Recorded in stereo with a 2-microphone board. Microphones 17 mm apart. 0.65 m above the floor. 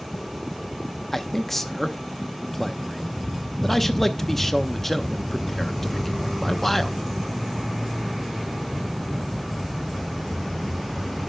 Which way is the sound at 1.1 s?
15° left (ahead or behind).